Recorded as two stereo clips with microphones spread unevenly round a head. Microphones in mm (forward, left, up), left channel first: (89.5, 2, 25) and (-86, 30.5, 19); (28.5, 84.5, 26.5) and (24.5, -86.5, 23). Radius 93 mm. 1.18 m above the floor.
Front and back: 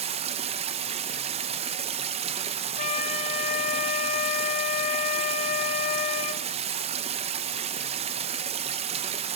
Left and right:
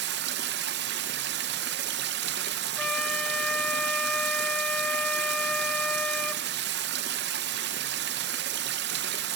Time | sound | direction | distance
0.0 | running water | 130° right | 0.7 m
2.8 | a flute | 10° left | 0.9 m